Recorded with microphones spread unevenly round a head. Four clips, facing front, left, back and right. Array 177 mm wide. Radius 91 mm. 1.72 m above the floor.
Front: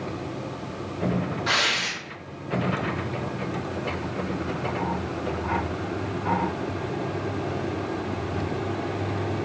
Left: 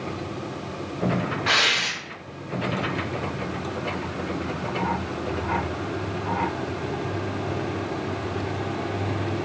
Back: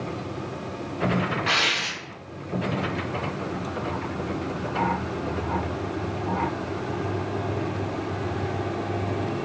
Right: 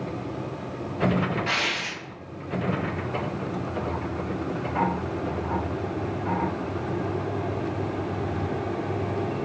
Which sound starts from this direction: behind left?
Tearing paper, at 1.5 s.